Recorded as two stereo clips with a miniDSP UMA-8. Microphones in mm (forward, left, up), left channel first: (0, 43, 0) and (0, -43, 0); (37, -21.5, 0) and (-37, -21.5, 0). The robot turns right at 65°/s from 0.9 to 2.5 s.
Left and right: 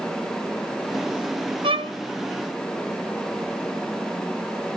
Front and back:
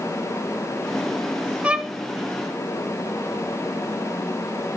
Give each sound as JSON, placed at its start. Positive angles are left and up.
{"t": 1.6, "sound": "a violin", "azimuth_deg": -105, "distance_m": 0.6}